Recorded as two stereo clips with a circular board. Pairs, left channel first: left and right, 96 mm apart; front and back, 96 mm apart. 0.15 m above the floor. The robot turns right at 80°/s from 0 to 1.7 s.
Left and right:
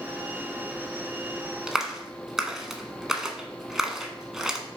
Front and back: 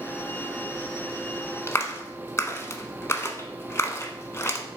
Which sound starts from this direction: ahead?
A clap, at 1.7 s.